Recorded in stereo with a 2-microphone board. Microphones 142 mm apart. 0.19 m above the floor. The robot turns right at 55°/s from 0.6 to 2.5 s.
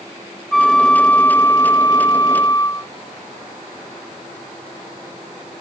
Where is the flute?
Centre (ahead or behind); by 2.9 s 20° left (ahead or behind).